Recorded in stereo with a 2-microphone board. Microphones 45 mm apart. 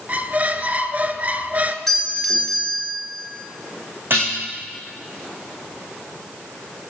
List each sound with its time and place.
0.1 s a squeak: 35° right (ahead or behind), 0.6 m
1.9 s a doorbell: centre (ahead or behind), 3 m
4.1 s dishes clattering: 50° right (ahead or behind), 6 m